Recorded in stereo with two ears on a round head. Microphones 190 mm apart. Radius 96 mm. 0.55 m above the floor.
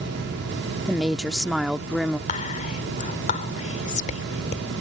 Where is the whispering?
35° left (ahead or behind).